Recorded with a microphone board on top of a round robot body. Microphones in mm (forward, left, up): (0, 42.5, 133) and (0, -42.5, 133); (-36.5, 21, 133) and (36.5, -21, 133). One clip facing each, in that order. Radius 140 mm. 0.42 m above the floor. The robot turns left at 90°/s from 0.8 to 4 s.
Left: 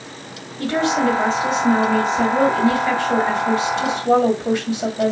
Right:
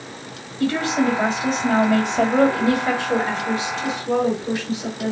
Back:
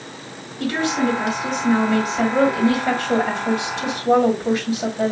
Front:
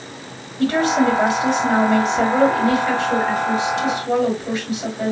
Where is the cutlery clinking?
I don't hear cutlery clinking.